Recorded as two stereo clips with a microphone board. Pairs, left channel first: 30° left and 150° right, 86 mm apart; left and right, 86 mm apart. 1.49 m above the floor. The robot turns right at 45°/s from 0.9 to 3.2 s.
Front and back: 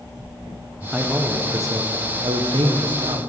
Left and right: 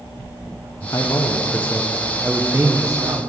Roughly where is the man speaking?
Behind left.